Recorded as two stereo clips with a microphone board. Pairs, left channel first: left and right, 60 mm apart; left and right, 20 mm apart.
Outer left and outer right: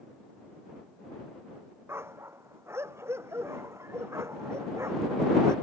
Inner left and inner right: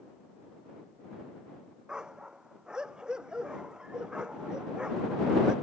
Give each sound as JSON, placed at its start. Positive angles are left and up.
{"t": 1.9, "sound": "a dog barking", "side_deg": -45}